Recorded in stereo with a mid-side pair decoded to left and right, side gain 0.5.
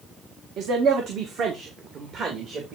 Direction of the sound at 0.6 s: 70° right.